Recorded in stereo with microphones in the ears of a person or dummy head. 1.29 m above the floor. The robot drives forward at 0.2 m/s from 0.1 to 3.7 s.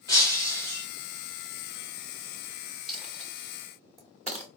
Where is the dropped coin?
5° left (ahead or behind), 0.7 m.